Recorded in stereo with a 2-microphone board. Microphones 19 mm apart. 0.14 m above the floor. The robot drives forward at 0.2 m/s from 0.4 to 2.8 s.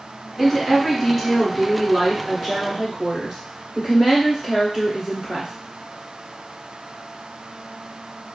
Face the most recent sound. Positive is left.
turn(degrees=-20)  # may be behind; listen again after turning